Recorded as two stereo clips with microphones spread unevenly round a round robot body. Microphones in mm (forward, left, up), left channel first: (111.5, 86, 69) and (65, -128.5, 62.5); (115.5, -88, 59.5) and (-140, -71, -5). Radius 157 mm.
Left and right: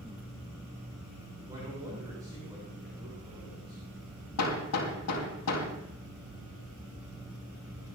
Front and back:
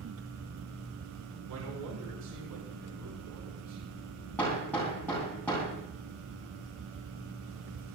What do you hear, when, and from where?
1.5 s a man speaking: 175° right, 7 m
4.4 s hammering: 80° left, 4 m